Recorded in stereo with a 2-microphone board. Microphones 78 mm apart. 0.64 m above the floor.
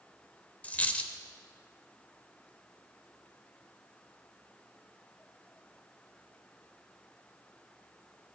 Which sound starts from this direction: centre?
A dropped coin, at 0.6 s.